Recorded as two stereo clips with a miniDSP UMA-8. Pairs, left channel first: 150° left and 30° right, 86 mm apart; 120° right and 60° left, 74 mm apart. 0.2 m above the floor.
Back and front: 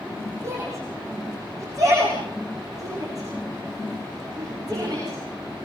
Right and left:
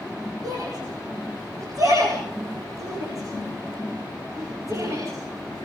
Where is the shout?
25° left, 9.5 m; by 5.2 s 15° left, 15 m.